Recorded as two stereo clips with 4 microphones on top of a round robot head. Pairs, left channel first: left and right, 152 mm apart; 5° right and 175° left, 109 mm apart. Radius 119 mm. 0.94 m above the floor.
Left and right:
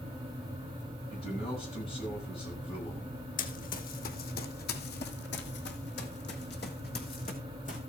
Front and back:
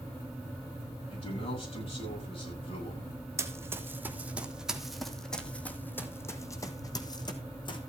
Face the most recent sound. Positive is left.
turn(degrees=40)